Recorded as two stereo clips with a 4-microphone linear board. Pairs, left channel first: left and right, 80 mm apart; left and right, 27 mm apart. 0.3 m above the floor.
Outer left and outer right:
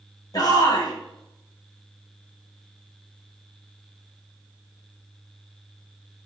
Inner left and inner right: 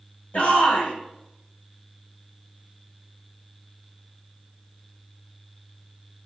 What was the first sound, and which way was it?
A shout, 50° left (ahead or behind).